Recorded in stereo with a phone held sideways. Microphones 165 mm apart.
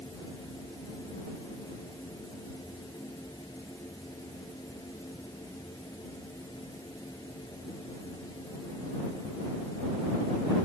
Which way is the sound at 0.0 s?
20° left (ahead or behind).